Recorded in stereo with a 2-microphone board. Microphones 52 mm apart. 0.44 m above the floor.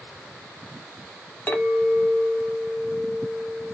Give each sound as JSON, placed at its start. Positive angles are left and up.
{"t": 1.5, "sound": "a clink", "side_deg": 30, "distance_m": 0.9}